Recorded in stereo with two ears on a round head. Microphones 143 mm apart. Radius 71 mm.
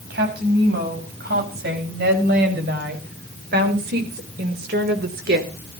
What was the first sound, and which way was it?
A woman speaking, 70° right (ahead or behind).